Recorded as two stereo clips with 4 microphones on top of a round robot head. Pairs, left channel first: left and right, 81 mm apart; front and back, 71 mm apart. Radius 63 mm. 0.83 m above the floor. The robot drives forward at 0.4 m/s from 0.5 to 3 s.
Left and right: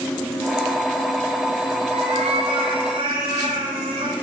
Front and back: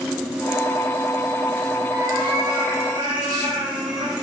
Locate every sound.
1.9 s a cat meowing: 135° right, 2.5 m; by 4.1 s 140° right, 2.5 m